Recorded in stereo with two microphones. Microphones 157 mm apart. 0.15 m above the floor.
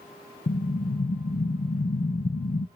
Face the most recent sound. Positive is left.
turn(degrees=65)  # may be behind; listen again after turning